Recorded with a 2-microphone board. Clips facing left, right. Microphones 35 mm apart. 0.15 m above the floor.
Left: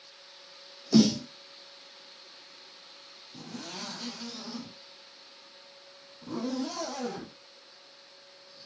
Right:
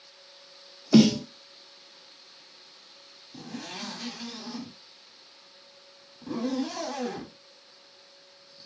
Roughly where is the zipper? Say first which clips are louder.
Right 3 dB; right.